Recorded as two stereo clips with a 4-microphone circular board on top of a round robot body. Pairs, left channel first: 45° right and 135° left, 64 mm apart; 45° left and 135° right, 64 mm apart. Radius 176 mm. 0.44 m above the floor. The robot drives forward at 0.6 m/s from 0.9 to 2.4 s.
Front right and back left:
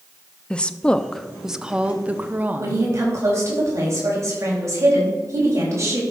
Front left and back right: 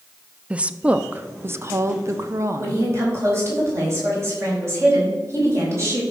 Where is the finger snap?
No finger snap in this recording.